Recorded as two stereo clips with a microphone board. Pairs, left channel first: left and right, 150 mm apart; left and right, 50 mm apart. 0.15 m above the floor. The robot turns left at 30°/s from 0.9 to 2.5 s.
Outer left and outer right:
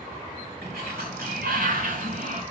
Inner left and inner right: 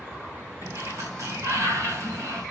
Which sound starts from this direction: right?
A sliding door, at 0.6 s.